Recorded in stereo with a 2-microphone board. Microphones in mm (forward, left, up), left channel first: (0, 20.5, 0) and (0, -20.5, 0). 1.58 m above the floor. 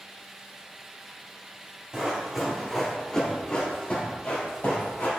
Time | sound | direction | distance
1.9 | running footsteps | 20° right (ahead or behind) | 1.8 m